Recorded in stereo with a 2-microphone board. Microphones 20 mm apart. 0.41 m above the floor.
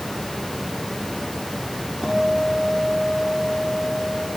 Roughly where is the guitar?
Right.